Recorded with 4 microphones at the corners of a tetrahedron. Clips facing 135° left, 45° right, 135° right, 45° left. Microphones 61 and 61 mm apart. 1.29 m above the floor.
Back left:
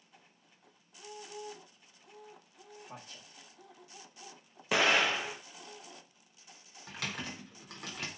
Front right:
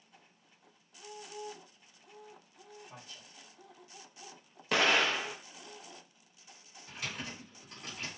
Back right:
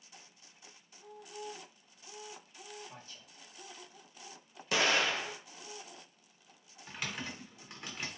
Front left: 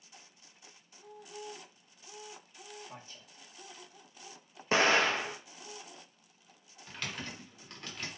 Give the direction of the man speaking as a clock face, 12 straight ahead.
8 o'clock.